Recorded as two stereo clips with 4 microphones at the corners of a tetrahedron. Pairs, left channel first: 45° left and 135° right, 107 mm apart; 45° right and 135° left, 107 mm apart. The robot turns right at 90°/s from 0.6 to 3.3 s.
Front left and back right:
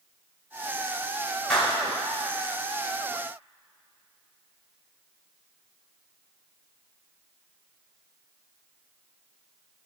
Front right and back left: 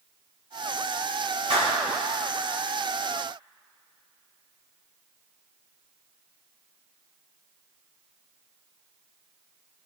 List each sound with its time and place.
1.5 s a clap: 130° left, 4.5 m; by 1.8 s 155° left, 4.5 m